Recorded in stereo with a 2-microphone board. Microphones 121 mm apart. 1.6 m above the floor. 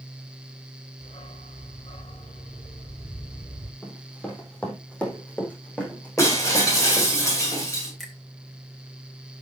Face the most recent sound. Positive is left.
turn(degrees=0)  # may be behind; listen again after turning